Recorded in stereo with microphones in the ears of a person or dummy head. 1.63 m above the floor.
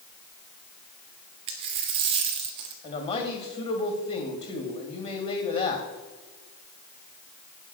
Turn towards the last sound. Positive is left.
turn(degrees=35)  # may be behind; listen again after turning